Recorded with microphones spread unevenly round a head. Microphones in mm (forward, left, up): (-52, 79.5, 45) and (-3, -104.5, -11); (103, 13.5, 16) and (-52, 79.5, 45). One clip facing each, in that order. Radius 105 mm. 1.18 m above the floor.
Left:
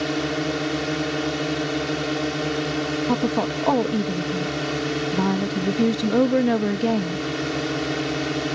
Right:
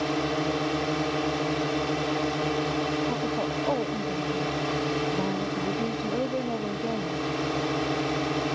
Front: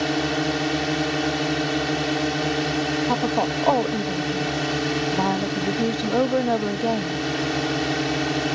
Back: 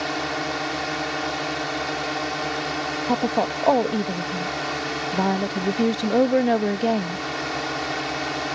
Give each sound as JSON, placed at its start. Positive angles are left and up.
{"t": 0.0, "sound": "a drone", "azimuth_deg": 30}
{"t": 3.1, "sound": "a woman speaking", "azimuth_deg": 85}